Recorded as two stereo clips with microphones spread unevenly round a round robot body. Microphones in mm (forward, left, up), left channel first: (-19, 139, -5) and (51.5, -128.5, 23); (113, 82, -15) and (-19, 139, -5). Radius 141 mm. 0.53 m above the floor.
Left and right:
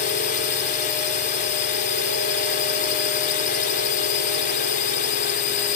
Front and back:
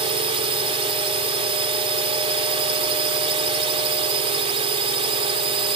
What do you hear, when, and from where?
0.0 s a drone: 140° left